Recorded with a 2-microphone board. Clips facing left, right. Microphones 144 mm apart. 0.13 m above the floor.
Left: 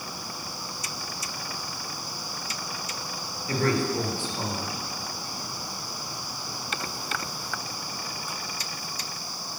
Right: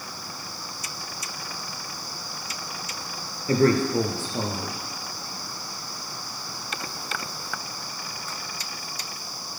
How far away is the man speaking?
About 3 m.